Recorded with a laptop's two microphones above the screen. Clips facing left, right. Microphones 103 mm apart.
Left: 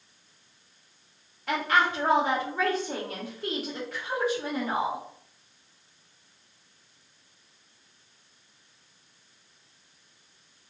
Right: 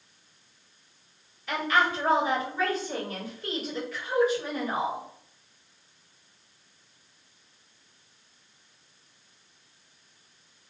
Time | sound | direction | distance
1.5 | a woman speaking | 75° left (ahead or behind) | 1.5 m